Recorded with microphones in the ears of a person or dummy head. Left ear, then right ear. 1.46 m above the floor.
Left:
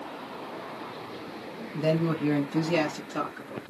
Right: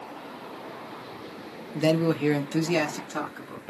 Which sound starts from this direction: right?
A man speaking, at 1.7 s.